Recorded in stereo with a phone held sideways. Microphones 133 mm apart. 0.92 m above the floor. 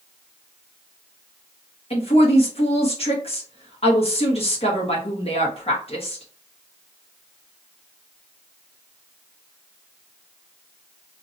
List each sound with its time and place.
1.9 s a woman speaking: 50° left (ahead or behind), 1.3 m